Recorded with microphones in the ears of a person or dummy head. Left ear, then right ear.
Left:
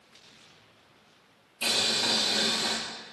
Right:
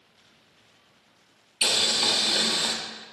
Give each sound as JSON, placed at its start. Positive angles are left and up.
{"t": 1.6, "sound": "boiling", "side_deg": -60, "distance_m": 1.1}